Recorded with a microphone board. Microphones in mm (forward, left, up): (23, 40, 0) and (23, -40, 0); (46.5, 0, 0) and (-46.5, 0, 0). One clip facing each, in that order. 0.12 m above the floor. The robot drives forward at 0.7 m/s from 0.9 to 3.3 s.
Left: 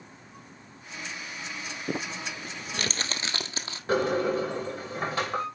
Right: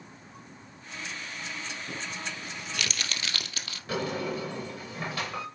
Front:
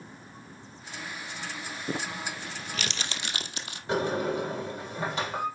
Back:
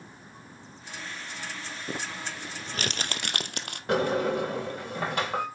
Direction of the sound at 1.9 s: 80° left.